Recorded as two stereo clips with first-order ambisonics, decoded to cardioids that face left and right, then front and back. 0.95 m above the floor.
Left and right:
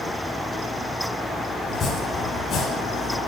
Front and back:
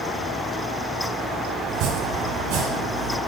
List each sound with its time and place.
1.7 s chopping: 145° left, 2.5 m